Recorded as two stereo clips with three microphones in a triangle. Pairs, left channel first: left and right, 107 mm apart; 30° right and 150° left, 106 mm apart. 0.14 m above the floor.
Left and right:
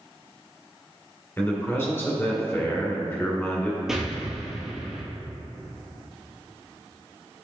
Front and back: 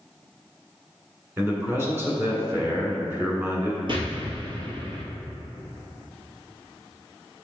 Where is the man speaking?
120° left, 1.7 m.